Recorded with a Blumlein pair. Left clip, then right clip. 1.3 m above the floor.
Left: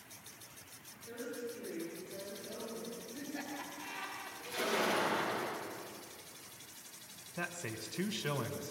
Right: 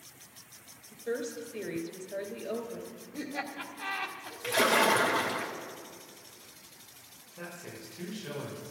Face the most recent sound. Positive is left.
turn(degrees=65)